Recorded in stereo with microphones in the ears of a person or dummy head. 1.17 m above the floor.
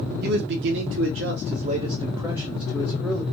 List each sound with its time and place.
0.2 s a man speaking: 60° right (ahead or behind), 0.8 m; by 3.2 s 5° left (ahead or behind), 1.2 m